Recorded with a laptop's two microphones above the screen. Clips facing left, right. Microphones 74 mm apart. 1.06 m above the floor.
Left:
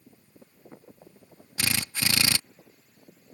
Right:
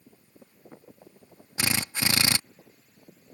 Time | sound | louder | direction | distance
1.6 | a drill | right 1 dB | 20° right (ahead or behind) | ?